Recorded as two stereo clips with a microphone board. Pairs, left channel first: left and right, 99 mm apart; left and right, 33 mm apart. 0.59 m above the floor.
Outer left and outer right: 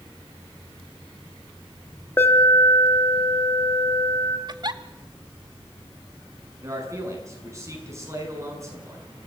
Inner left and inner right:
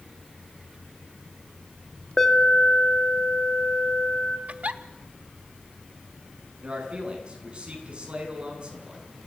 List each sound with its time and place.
2.2 s an alarm: 20° left (ahead or behind), 1.9 m
4.5 s a giggle: 45° right (ahead or behind), 1.0 m
6.6 s a man speaking: 30° right (ahead or behind), 6 m